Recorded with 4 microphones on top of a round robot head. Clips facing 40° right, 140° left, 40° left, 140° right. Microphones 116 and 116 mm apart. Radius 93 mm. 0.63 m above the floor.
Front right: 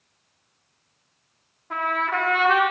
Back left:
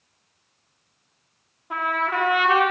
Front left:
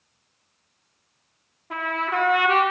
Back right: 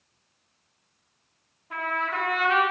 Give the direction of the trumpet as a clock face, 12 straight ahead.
10 o'clock.